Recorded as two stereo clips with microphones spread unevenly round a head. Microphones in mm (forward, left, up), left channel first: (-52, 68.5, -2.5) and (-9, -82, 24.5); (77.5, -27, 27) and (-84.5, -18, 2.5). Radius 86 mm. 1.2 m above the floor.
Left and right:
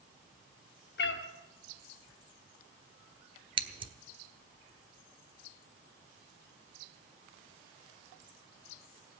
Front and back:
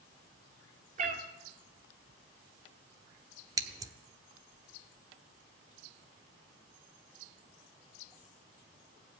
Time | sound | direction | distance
1.0 | a cat meowing | 125° left | 1.7 m
3.6 | scissors | 110° right | 1.1 m